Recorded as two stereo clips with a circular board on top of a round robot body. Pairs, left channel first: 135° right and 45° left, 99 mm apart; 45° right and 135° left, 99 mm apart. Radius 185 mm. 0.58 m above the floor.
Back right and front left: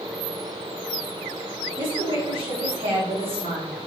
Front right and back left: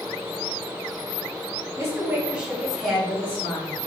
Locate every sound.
1.8 s a woman speaking: 75° left, 1.6 m; by 3.7 s 25° left, 1.8 m